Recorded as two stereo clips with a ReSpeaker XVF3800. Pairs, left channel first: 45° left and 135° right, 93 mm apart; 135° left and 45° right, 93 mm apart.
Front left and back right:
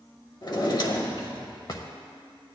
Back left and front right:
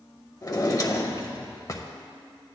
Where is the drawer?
85° left, 1.0 m.